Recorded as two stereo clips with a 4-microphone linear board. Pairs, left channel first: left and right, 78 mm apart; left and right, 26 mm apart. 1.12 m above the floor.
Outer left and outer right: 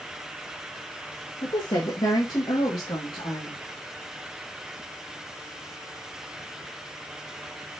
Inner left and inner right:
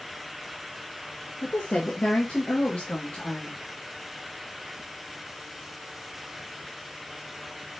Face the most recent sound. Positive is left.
turn(degrees=75)  # may be behind; listen again after turning